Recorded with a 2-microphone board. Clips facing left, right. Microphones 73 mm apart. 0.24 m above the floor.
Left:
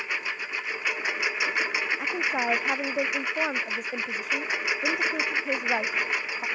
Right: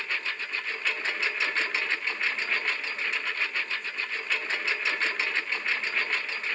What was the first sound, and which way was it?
A lawn mower, 15° left (ahead or behind).